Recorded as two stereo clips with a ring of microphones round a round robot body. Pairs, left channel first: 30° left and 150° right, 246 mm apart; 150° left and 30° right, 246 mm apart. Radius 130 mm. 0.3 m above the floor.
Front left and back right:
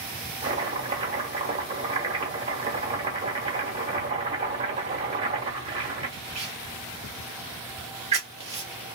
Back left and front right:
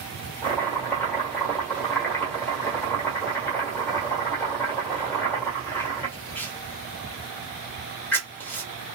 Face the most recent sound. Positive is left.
turn(degrees=-140)